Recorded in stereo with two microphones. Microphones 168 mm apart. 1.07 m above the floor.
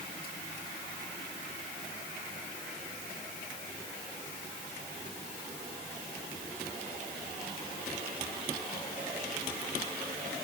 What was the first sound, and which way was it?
Only background noise.